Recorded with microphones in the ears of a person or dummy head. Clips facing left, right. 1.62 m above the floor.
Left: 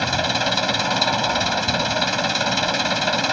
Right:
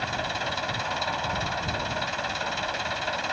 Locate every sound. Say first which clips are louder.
0.0 s an engine running: left 8 dB; 80° left